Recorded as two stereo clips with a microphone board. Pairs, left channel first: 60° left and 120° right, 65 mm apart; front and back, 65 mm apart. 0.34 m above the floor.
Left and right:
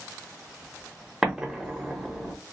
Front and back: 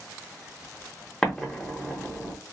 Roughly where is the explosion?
Ahead right.